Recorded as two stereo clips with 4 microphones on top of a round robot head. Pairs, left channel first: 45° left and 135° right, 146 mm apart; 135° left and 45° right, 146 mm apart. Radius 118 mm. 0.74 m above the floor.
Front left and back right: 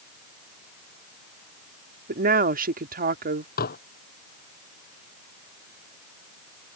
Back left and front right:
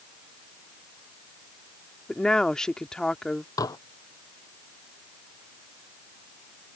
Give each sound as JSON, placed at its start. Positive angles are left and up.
{"t": 2.1, "sound": "a woman speaking", "azimuth_deg": -140}
{"t": 3.6, "sound": "dishes clattering", "azimuth_deg": 70}